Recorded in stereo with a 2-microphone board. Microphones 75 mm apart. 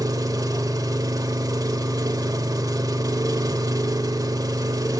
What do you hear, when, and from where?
0.0 s an engine running: 50° right (ahead or behind), 0.8 m